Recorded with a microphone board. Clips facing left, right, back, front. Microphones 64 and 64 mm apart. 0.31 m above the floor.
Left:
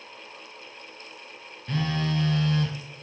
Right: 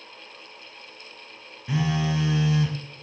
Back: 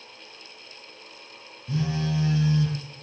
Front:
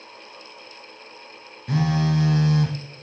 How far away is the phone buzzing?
About 1.2 m.